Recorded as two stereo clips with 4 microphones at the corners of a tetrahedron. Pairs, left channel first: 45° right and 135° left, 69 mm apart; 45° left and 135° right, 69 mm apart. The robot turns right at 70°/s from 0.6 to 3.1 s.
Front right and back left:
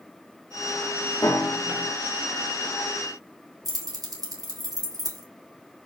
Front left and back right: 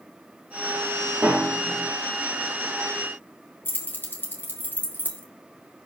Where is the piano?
60° right, 1.7 m; by 1.9 s 15° right, 1.7 m.